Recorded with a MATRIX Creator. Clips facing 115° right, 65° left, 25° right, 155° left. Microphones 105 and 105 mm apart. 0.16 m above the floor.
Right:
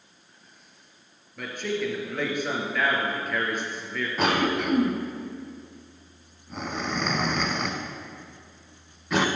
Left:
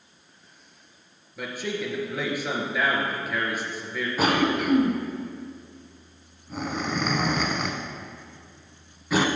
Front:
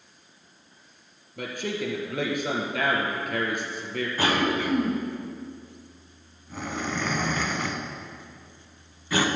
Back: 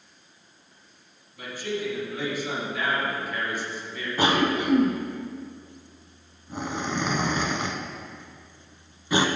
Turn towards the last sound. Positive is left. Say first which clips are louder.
# left 1 dB, back 3 dB
turn(degrees=150)